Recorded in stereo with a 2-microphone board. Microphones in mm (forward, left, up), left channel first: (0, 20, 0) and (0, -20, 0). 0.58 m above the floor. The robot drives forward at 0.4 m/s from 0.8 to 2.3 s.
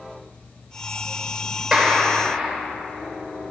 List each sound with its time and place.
1.7 s a clap: 10° right (ahead or behind), 1.8 m